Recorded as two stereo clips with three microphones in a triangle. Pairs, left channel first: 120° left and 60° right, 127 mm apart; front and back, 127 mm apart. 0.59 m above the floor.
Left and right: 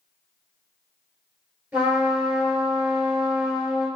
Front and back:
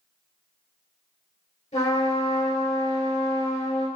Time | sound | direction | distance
1.7 | a trumpet | 15° left | 2.5 m